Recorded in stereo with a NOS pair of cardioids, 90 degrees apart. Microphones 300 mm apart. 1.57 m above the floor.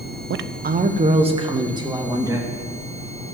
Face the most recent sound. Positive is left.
turn(degrees=-10)